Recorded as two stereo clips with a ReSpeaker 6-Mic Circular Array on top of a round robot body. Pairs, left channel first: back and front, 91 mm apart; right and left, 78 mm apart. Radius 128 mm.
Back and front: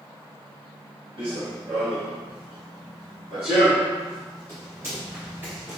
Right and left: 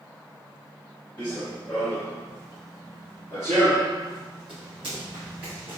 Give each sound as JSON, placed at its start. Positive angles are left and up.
{"t": 1.2, "sound": "running footsteps", "azimuth_deg": -30, "distance_m": 1.5}